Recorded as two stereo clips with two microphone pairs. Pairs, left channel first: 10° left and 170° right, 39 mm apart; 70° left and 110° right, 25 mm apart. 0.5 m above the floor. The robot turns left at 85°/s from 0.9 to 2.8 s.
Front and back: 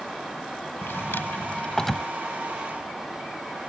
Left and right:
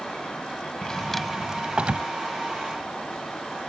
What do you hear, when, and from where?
0.8 s a drawer: 10° left; by 2.1 s 85° right